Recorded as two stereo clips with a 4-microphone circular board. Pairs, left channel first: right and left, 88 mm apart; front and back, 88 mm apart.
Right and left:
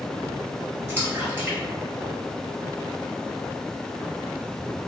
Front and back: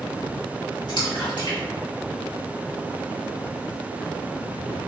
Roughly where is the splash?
Ahead left.